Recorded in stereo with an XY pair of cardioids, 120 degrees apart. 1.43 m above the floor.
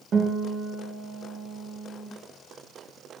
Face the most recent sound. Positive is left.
turn(degrees=-45)